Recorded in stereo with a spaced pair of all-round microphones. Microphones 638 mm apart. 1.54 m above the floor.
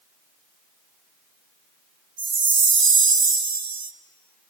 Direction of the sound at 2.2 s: 35° right (ahead or behind).